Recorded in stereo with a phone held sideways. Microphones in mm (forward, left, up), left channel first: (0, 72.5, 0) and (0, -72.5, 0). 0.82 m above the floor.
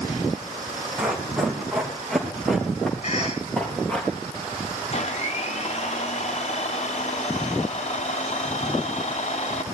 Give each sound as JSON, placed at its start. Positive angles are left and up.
{"t": 1.0, "sound": "running footsteps", "side_deg": -10, "distance_m": 3.5}
{"t": 3.0, "sound": "a cough", "side_deg": 55, "distance_m": 4.5}
{"t": 4.9, "sound": "a blender", "side_deg": 50, "distance_m": 0.7}